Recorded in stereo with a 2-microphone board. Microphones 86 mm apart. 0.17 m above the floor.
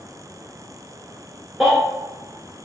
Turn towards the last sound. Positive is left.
turn(degrees=0)  # may be behind; listen again after turning